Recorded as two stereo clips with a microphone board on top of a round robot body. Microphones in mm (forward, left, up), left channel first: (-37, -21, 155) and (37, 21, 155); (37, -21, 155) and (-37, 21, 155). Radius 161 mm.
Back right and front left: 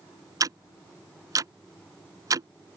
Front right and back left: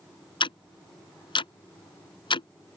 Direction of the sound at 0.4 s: 15° right.